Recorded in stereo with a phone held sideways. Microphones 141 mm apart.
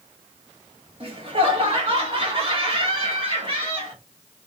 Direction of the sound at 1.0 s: 40° right (ahead or behind).